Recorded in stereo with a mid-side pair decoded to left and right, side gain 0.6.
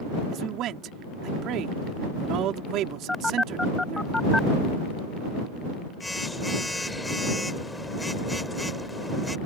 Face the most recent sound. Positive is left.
turn(degrees=10)